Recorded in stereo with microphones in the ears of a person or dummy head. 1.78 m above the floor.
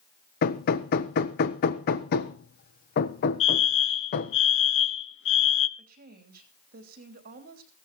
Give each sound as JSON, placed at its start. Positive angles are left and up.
{"t": 0.4, "sound": "hammering", "side_deg": 55, "distance_m": 1.2}
{"t": 3.4, "sound": "a fire alarm", "side_deg": 60, "distance_m": 1.0}
{"t": 5.8, "sound": "a woman speaking", "side_deg": -45, "distance_m": 3.0}